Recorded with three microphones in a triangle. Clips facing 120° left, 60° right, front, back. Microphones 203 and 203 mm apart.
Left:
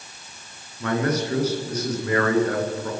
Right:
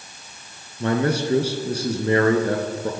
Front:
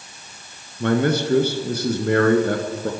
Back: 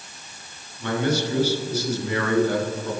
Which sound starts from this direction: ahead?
A man speaking, at 0.8 s.